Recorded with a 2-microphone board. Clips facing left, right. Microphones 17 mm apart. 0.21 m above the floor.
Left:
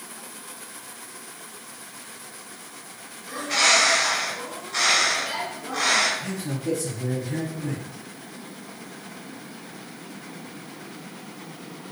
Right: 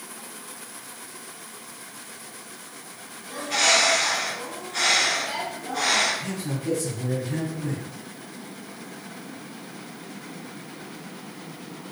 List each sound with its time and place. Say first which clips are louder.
3.3 s a bird: left 1 dB; 50° left (ahead or behind), 2.0 m
6.2 s a man speaking: even; 15° right (ahead or behind), 1.6 m